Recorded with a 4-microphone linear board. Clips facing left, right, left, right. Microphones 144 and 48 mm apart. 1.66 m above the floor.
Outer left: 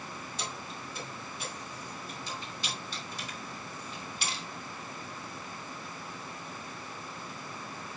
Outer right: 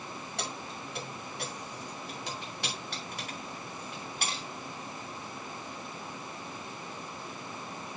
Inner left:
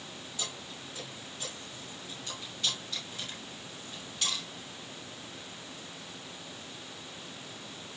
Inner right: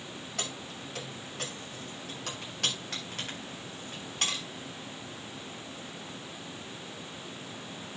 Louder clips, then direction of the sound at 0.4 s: Outer right 3 dB, inner right 3 dB; 75° right (ahead or behind).